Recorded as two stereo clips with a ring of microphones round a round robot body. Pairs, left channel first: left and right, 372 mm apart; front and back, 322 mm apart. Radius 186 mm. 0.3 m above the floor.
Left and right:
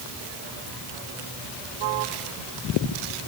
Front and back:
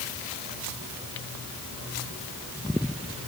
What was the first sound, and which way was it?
Only background noise.